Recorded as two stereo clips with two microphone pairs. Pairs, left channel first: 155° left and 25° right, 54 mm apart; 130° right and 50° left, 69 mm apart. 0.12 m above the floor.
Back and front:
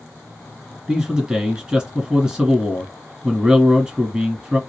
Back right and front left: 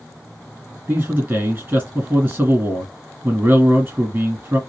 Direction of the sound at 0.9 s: 30° left.